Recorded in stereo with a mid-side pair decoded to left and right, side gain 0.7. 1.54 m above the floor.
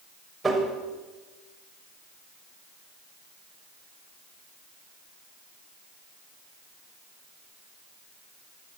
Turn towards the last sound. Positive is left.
turn(degrees=-15)